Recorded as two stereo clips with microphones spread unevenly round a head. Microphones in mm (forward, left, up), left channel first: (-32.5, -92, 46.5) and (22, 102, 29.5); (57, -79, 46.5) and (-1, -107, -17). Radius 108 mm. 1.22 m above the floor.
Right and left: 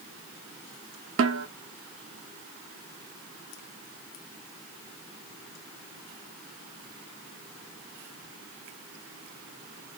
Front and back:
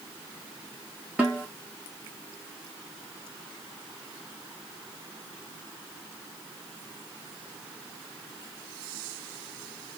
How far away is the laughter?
No laughter in this recording.